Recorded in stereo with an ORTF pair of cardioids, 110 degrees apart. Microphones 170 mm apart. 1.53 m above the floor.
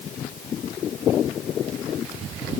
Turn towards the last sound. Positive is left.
No sound to turn to.